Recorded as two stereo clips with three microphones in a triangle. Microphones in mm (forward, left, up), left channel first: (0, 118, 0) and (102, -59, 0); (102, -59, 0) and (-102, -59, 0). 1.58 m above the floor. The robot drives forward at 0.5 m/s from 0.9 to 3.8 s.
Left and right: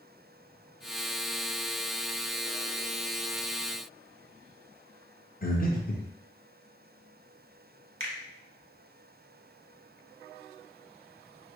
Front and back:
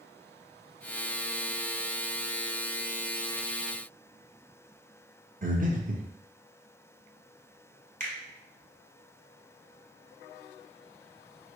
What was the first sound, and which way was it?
Breathing, 145° left.